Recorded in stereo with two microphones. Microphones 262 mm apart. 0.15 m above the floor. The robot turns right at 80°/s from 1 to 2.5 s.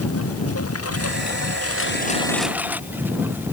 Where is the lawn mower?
60° left (ahead or behind); by 3.5 s 10° right (ahead or behind).